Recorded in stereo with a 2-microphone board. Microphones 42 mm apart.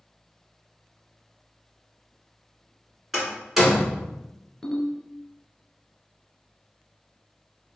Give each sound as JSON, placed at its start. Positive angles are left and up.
{"t": 3.1, "sound": "a door slam", "side_deg": -5, "distance_m": 1.8}
{"t": 4.6, "sound": "a ringtone", "side_deg": 10, "distance_m": 0.8}